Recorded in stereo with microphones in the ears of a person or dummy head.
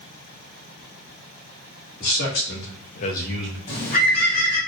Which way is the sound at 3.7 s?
45° left (ahead or behind).